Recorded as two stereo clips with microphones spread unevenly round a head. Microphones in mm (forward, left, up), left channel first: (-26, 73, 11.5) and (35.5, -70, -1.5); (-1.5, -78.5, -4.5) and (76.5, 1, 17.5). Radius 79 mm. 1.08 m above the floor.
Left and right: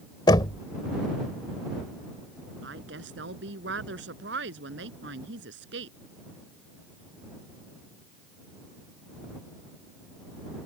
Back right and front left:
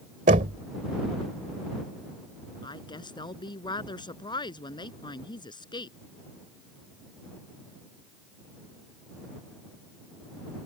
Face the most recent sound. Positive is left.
turn(degrees=-85)